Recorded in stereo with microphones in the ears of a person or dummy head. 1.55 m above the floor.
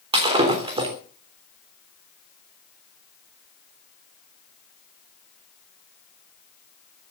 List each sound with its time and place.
0.1 s breaking glass: 25° right (ahead or behind), 3 m